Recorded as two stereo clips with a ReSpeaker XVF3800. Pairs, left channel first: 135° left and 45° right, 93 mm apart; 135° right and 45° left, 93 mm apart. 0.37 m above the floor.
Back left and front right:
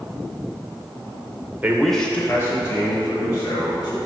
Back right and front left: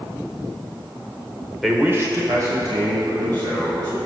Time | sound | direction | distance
1.6 | a man speaking | 50° right | 0.8 m